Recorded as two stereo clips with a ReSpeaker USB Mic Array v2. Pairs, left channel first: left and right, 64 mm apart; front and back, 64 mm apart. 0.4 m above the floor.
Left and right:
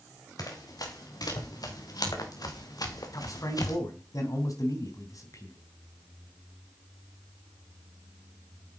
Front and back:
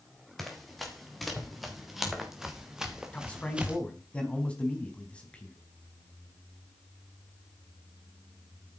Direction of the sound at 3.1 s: 70° left.